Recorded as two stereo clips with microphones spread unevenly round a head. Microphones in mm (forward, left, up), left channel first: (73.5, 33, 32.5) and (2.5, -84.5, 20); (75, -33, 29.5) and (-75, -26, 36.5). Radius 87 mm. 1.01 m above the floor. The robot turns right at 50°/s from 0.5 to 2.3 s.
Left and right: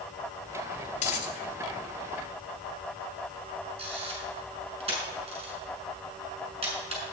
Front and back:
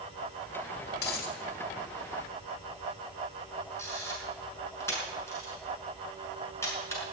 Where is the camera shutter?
75° right, 6.5 m.